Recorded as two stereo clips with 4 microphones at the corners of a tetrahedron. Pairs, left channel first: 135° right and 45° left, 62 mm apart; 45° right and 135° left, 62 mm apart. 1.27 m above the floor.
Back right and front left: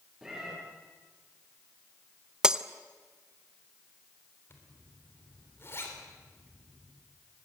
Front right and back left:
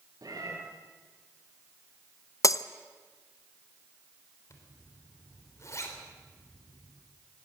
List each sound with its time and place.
0.2 s a cat meowing: 130° left, 6 m
2.4 s breaking glass: 30° right, 0.6 m
4.5 s a zipper: 85° right, 3.5 m